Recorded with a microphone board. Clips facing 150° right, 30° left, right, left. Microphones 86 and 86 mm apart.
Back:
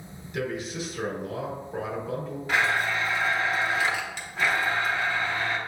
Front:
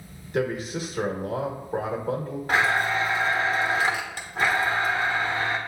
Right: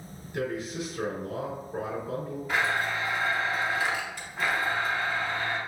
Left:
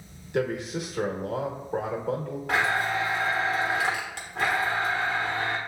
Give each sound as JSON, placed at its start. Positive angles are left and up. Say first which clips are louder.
{"t": 0.3, "sound": "a man speaking", "louder": "front 4 dB, left 4 dB", "azimuth_deg": 75, "distance_m": 1.1}
{"t": 2.5, "sound": "a blender", "louder": "front 2 dB, left 3 dB", "azimuth_deg": 80, "distance_m": 1.0}